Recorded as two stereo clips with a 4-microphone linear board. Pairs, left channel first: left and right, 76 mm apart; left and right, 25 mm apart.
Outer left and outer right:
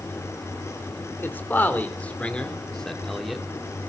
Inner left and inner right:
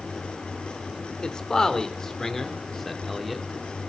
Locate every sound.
1.2 s a man speaking: 30° left (ahead or behind), 3 m; by 3.5 s centre (ahead or behind), 2 m